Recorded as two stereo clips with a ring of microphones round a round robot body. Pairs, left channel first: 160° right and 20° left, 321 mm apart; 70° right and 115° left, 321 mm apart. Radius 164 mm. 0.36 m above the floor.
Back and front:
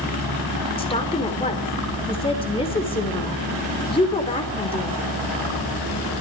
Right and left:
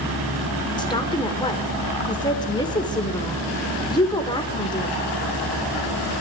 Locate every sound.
0.8 s a woman speaking: 120° right, 1.4 m